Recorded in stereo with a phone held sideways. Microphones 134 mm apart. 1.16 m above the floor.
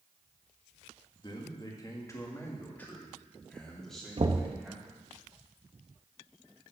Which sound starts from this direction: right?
Knocking, at 4.2 s.